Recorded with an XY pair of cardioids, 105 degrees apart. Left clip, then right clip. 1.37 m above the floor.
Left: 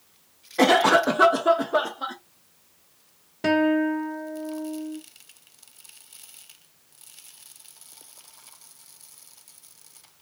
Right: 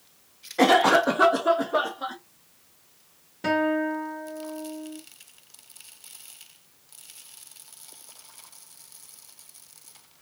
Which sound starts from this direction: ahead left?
A guitar, at 3.4 s.